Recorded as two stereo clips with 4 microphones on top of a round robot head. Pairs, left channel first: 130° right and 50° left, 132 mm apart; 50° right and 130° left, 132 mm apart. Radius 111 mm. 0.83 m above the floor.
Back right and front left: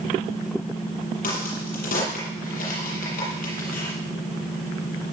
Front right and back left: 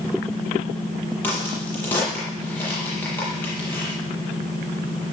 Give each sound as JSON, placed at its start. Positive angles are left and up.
{"t": 1.2, "sound": "a crack", "azimuth_deg": -125, "distance_m": 7.5}